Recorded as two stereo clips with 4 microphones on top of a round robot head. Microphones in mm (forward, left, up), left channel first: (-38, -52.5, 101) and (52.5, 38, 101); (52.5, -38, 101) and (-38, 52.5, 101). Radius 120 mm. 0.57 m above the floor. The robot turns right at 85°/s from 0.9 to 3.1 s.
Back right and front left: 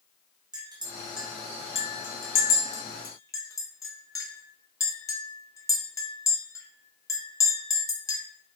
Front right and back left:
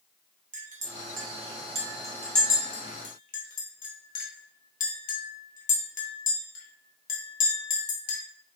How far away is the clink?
About 1.8 m.